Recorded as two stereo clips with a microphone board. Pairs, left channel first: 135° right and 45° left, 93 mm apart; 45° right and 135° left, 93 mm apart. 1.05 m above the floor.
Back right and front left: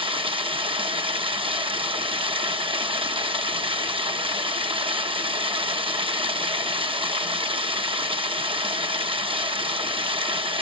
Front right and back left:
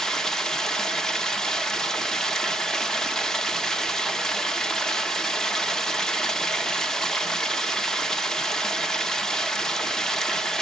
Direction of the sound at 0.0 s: 40° left.